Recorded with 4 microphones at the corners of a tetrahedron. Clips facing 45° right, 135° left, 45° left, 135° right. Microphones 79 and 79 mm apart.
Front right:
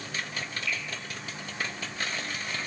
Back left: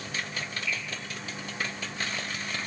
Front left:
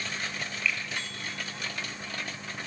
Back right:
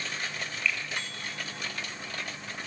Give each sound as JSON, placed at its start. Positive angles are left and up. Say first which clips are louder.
{"t": 0.7, "sound": "a finger snap", "louder": "even, even", "azimuth_deg": -35, "distance_m": 3.0}